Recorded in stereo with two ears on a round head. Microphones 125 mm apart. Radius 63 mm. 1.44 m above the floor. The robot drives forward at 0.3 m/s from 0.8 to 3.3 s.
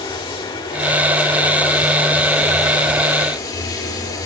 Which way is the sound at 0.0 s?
35° left (ahead or behind).